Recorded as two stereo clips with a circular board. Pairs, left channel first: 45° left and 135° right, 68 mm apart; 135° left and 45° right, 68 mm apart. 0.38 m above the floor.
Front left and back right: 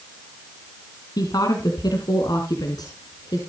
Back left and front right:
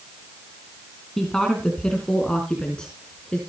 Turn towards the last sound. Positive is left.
turn(degrees=60)